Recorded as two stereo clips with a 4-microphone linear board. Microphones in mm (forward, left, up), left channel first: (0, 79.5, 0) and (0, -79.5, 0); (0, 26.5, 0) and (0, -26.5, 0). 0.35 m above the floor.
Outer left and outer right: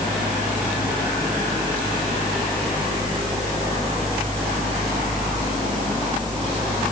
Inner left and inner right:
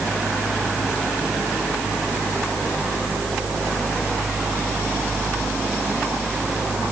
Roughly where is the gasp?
I don't hear a gasp.